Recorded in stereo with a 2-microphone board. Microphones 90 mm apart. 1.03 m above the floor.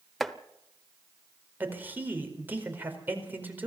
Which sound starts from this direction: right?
A man speaking, at 1.6 s.